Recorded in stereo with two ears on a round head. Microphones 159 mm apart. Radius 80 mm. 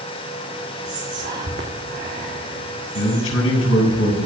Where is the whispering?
50° right (ahead or behind), 2 m.